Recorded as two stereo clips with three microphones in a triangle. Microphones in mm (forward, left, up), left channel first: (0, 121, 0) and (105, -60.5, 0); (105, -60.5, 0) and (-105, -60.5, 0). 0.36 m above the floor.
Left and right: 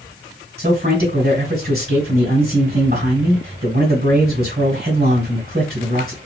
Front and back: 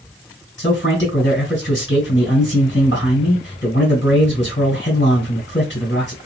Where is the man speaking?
20° right, 3 m.